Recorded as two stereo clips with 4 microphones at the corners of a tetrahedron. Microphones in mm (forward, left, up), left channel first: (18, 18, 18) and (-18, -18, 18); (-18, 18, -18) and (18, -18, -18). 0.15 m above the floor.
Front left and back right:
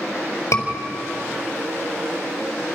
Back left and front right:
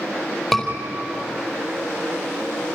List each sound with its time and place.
0.5 s a scream: 50° left, 4.5 m